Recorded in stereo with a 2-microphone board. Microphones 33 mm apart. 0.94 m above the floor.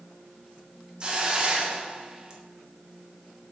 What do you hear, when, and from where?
1.0 s a hiss: 25° right (ahead or behind), 0.6 m